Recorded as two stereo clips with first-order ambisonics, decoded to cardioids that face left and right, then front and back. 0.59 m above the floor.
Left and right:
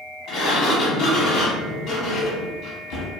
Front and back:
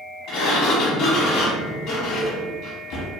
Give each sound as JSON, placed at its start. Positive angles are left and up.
{"t": 0.3, "sound": "a sliding door", "azimuth_deg": 40, "distance_m": 0.8}